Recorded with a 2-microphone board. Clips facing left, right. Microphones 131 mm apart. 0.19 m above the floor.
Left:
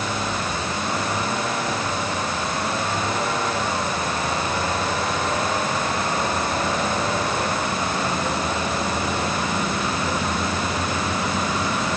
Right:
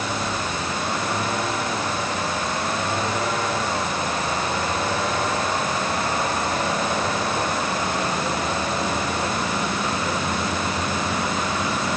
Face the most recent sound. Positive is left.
No sound to turn to.